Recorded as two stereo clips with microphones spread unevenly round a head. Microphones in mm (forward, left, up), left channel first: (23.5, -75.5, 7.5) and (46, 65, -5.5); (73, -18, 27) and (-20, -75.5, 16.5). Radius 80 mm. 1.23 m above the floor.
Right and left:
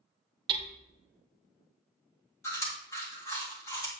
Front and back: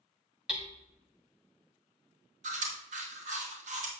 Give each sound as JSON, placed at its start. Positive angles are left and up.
{"t": 0.5, "sound": "hammering", "azimuth_deg": 120, "distance_m": 1.0}
{"t": 2.4, "sound": "chewing", "azimuth_deg": -175, "distance_m": 1.8}